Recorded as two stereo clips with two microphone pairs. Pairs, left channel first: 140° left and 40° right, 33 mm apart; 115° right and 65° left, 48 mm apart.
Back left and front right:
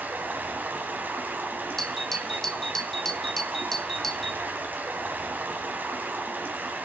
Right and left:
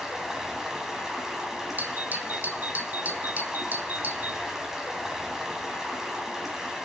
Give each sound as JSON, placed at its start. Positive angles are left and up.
{"t": 0.0, "sound": "running water", "azimuth_deg": -15, "distance_m": 2.5}
{"t": 1.8, "sound": "a doorbell", "azimuth_deg": 65, "distance_m": 1.1}